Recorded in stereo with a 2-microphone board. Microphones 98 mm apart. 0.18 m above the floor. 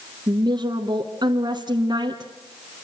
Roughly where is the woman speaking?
Right.